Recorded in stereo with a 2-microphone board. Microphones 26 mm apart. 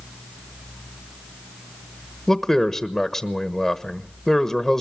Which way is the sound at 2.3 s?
10° left (ahead or behind).